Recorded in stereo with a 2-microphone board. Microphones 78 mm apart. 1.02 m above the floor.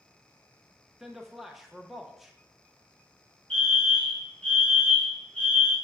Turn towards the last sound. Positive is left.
turn(degrees=15)  # may be behind; listen again after turning